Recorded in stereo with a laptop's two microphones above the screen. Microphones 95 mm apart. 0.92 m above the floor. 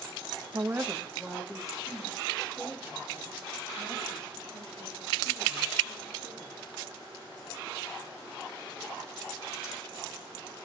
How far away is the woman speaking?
About 0.6 m.